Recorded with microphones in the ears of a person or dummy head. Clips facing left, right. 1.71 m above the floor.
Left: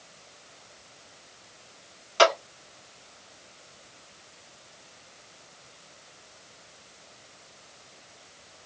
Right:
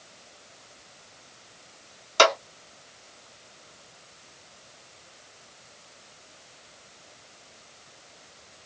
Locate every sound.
2.2 s a clap: 70° right (ahead or behind), 2.5 m